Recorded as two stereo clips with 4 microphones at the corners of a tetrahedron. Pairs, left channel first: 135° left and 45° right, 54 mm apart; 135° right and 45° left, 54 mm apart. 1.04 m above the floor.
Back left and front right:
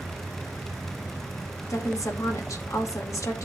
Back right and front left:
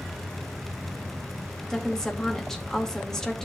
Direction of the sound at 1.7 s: 145° left.